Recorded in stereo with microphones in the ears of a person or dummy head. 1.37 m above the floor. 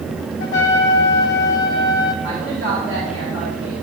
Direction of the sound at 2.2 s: 20° left (ahead or behind).